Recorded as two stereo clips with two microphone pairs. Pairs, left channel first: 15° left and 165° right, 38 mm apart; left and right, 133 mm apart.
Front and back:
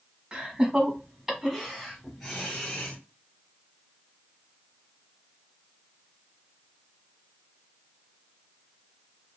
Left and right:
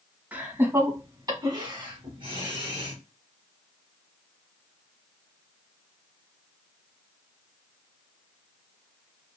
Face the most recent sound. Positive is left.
turn(degrees=-60)